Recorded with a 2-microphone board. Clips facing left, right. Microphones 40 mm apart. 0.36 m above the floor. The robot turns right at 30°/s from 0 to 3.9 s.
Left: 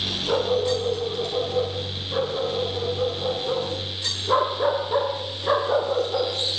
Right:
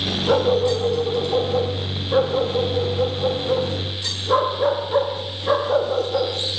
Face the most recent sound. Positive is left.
turn(degrees=30)